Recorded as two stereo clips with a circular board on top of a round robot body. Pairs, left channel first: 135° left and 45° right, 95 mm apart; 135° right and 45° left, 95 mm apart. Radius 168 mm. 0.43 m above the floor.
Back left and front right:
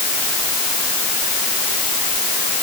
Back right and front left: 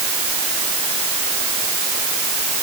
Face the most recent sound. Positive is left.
No sound to turn to.